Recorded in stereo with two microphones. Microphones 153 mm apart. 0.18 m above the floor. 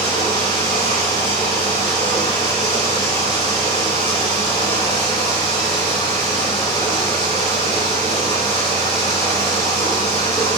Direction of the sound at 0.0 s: 30° left (ahead or behind).